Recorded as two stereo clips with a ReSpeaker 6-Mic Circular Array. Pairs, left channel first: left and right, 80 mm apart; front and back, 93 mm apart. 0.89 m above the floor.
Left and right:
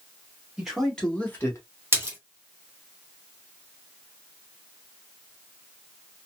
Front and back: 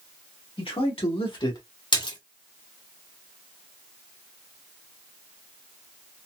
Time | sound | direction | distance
0.6 | a man speaking | 5° right | 2.0 m
1.9 | a splash | 30° right | 1.6 m